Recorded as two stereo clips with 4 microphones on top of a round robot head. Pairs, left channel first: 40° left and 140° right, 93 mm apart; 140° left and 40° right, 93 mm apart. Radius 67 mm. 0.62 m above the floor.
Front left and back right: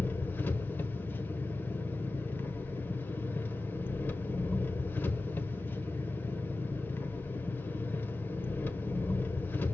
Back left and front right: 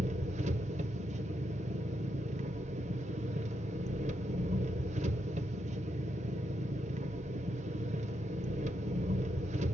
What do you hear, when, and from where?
0.0 s an engine running: 30° right, 0.9 m